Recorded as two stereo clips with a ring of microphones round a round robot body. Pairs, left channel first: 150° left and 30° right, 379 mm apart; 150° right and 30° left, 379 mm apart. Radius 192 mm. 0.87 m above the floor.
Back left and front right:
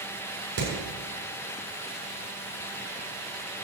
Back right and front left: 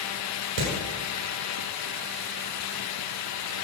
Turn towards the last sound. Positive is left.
turn(degrees=20)